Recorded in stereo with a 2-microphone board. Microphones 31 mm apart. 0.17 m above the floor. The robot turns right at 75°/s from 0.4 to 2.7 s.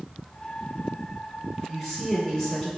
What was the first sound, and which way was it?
A woman speaking, 35° right.